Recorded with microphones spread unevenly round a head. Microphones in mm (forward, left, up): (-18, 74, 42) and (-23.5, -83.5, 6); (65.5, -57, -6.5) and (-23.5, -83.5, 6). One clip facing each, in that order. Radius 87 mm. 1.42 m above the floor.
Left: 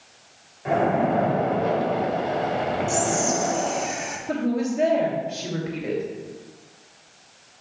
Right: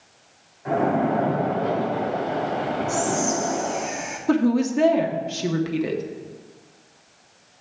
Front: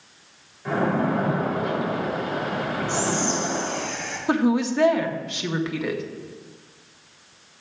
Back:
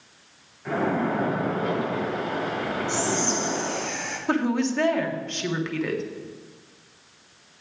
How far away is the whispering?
About 2.5 m.